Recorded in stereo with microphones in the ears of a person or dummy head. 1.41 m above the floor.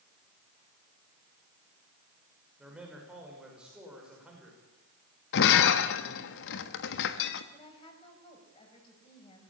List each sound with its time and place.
2.6 s a man speaking: 10° right (ahead or behind), 6 m
5.3 s breaking glass: 65° left (ahead or behind), 1.3 m
7.5 s a woman speaking: 35° left (ahead or behind), 6.5 m